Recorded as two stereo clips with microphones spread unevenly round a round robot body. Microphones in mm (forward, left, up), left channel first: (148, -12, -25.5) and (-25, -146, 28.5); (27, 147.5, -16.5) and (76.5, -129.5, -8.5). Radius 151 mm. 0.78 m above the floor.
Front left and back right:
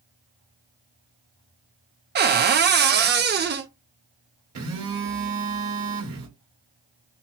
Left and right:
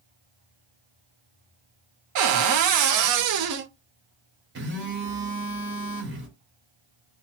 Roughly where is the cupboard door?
Right.